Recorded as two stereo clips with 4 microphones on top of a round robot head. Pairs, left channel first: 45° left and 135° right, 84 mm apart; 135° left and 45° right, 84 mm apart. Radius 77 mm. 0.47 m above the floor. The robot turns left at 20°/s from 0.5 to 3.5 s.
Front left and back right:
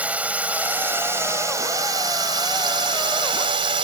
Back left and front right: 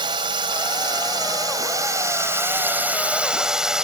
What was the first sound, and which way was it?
A drone, 65° right.